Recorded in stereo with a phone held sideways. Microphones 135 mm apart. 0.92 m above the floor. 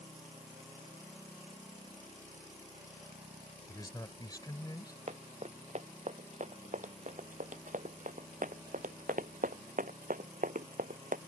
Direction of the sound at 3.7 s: 25° left (ahead or behind).